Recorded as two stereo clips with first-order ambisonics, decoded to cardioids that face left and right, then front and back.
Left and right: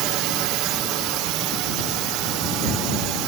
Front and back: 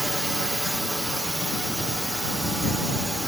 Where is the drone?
95° right.